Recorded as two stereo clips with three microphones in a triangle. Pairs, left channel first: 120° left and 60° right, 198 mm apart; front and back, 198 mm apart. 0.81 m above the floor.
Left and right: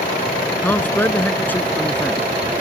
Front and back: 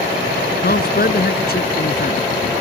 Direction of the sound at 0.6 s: 40° left.